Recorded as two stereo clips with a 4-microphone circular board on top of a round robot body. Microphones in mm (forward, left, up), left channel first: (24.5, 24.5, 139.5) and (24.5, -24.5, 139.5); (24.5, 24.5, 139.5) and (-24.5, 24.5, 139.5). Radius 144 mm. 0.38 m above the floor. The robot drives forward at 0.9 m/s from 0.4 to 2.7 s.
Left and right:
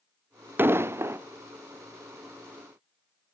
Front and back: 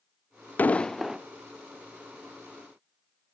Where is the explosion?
50° right, 0.7 m; by 1.2 s 115° right, 0.6 m.